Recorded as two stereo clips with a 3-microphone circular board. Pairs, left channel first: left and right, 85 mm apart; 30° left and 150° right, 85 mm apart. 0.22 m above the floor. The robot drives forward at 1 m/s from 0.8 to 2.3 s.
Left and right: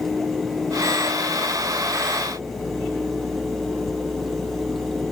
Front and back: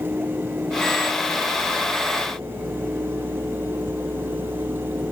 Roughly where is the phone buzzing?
I don't hear a phone buzzing.